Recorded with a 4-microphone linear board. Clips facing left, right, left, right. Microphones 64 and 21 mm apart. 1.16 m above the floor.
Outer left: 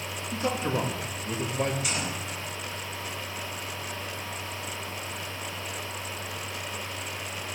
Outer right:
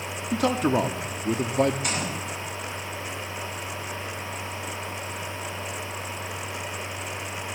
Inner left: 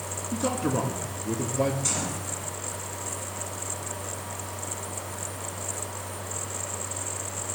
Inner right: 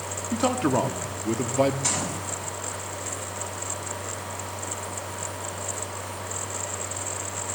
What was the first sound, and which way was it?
A man speaking, 75° right (ahead or behind).